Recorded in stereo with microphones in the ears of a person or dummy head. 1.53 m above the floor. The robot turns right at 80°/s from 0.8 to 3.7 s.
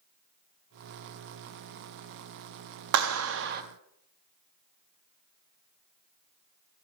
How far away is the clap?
About 0.5 m.